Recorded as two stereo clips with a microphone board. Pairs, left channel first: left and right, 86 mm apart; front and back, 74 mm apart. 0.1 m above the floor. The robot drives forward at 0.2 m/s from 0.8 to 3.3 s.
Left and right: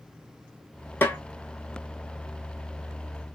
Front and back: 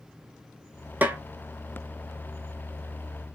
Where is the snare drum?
135° left, 0.6 m; by 1.2 s 140° left, 0.7 m.